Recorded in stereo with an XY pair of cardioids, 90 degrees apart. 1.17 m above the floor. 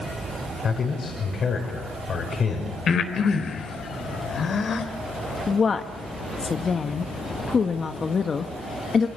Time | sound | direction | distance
0.6 | a man speaking | 50° left | 6 m
2.9 | breathing | 55° left | 3.5 m
5.5 | a woman speaking | 40° left | 1.6 m